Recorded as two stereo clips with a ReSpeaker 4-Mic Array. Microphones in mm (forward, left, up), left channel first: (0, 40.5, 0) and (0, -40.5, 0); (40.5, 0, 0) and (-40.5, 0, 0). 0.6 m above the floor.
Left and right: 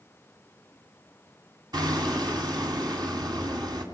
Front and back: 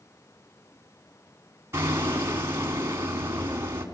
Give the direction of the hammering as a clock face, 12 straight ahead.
4 o'clock.